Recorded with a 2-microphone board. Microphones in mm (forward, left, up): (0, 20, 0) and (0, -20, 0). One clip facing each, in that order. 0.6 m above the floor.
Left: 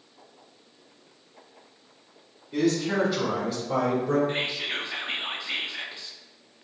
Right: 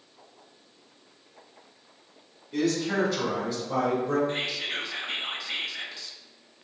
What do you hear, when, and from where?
2.5 s a man speaking: 15° left (ahead or behind), 2.0 m; by 4.2 s 45° left (ahead or behind), 2.5 m
4.3 s whispering: 30° left (ahead or behind), 0.6 m